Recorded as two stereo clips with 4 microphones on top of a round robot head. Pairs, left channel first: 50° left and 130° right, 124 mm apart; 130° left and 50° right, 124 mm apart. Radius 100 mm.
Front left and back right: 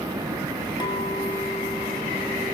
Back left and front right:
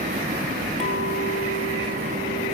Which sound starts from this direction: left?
A clink, at 0.8 s.